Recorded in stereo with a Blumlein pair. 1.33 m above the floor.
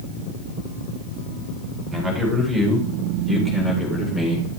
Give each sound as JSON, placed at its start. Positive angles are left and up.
{"t": 1.9, "sound": "a man speaking", "azimuth_deg": -15, "distance_m": 4.5}